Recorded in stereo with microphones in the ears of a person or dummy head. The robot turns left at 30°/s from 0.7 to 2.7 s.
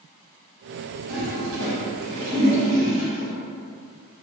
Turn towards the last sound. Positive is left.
turn(degrees=-75)  # may be behind; listen again after turning